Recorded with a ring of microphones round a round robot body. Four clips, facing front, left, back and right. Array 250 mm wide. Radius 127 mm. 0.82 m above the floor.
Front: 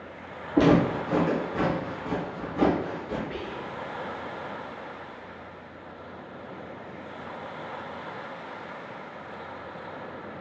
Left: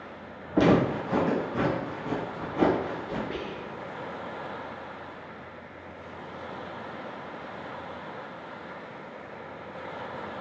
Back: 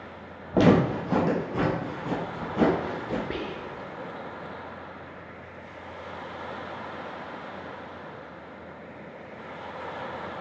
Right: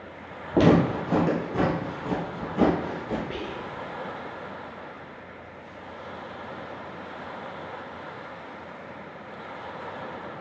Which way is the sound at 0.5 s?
135° right.